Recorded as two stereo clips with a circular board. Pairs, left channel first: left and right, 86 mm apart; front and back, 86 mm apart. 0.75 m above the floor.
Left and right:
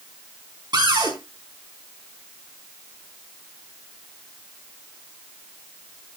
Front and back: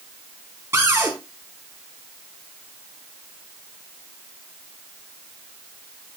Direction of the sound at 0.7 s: 120° right.